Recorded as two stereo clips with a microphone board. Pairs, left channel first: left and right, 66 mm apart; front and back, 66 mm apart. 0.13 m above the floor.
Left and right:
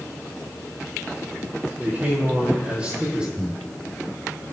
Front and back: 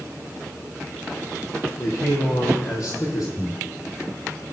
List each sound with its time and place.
1.8 s a man speaking: 25° right, 4.5 m; by 3.3 s 15° right, 4.5 m
3.4 s breathing: 20° left, 1.2 m